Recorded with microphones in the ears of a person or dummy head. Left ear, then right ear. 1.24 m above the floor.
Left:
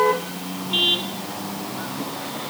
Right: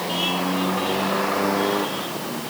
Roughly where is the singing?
No singing in this recording.